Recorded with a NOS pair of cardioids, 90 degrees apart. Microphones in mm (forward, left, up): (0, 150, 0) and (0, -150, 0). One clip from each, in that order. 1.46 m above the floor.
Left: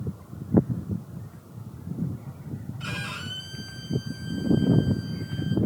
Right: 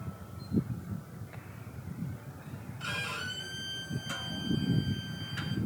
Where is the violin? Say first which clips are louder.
Left 1 dB; 10° left, 2.5 m.